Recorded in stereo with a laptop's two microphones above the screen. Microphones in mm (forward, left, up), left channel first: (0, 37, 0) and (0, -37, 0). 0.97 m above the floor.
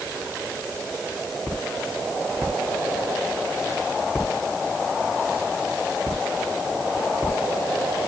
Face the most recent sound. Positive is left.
No sound to turn to.